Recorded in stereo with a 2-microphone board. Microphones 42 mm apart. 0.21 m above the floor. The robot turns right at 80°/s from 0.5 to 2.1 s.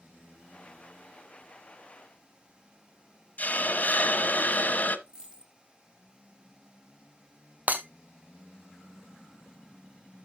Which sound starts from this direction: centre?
A dropped coin, at 5.1 s.